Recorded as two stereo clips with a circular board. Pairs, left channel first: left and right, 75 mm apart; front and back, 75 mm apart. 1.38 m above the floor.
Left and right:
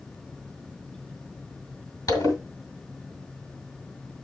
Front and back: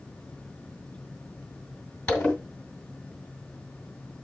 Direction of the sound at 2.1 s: 75° left.